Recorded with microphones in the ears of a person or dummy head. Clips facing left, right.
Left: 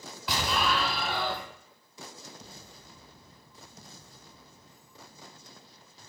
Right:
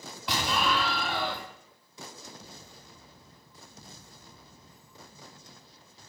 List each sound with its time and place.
0.3 s an explosion: centre (ahead or behind), 1.2 m